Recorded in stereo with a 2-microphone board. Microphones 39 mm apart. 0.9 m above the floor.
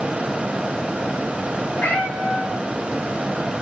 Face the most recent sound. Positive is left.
turn(degrees=80)